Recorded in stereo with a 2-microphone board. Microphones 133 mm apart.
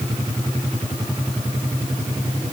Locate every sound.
Only background noise.